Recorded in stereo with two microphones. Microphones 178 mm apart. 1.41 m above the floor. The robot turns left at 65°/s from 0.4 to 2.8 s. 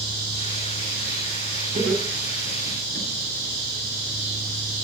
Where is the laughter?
50° right (ahead or behind), 9.5 m; by 3.1 s 60° right (ahead or behind), 9.5 m.